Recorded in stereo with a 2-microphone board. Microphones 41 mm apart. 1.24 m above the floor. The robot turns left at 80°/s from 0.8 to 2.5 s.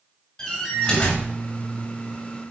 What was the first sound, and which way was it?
A door slam, 160° left.